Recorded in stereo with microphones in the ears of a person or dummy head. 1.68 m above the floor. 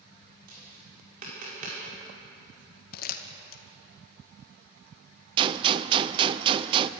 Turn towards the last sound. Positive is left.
turn(degrees=-25)  # may be behind; listen again after turning